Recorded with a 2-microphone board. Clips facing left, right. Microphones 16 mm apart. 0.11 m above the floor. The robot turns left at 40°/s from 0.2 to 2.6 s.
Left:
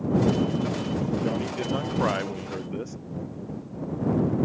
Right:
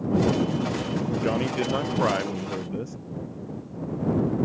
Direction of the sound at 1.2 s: 140° right.